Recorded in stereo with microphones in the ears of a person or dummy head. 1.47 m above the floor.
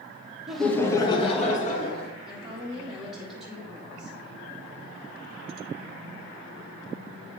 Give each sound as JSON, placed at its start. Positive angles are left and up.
{"t": 0.5, "sound": "laughter", "side_deg": 0, "distance_m": 1.2}
{"t": 2.2, "sound": "a woman speaking", "side_deg": -5, "distance_m": 1.5}